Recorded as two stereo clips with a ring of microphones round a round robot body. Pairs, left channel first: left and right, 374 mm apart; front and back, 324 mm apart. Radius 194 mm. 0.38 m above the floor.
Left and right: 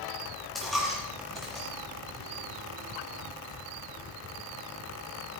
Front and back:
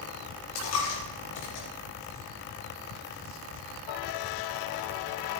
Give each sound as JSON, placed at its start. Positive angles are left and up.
{"t": 0.6, "sound": "a dropped coin", "azimuth_deg": 0, "distance_m": 5.0}